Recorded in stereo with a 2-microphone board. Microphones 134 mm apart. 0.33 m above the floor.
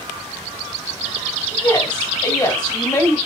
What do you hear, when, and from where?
1.5 s a woman speaking: 30° left (ahead or behind), 1.2 m